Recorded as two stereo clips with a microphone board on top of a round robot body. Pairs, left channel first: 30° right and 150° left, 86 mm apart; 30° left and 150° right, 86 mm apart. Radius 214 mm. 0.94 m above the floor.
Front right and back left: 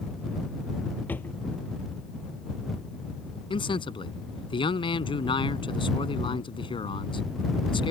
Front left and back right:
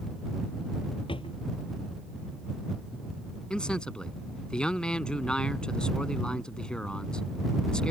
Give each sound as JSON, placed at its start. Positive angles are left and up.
{"t": 1.1, "sound": "a drawer", "azimuth_deg": 40}
{"t": 3.5, "sound": "a man speaking", "azimuth_deg": -50}